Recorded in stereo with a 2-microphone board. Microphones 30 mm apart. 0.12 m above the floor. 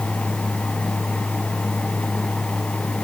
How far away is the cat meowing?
No cat meowing in this recording.